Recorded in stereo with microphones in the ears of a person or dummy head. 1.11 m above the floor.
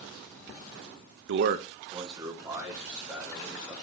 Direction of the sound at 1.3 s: 75° right (ahead or behind).